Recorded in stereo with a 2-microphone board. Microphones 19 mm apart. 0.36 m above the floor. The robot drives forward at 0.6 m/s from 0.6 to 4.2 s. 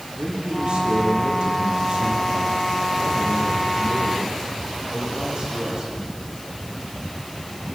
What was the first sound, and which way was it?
A man speaking, 55° right (ahead or behind).